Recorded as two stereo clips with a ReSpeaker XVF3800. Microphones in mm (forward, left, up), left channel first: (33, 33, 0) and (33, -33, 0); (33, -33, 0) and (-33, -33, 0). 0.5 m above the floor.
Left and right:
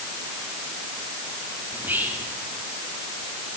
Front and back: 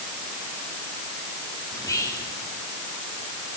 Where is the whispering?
30° right, 5.5 m.